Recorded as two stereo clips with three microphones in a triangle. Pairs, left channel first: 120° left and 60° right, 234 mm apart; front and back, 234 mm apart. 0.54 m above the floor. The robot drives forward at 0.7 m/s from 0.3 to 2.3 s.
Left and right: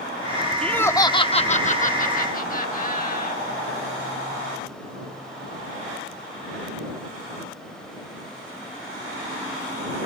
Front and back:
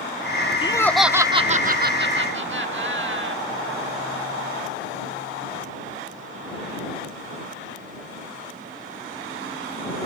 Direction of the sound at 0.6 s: 40° left.